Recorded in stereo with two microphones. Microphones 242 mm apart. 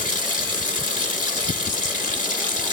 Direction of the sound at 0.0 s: 35° left (ahead or behind).